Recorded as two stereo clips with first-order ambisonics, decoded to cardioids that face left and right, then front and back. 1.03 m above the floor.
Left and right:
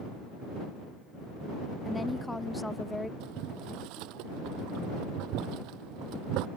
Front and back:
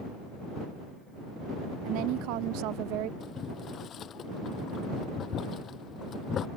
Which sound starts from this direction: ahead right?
Boiling, at 3.2 s.